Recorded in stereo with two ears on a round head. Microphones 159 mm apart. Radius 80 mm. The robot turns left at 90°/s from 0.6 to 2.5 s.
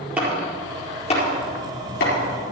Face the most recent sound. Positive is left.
turn(degrees=15)  # may be behind; listen again after turning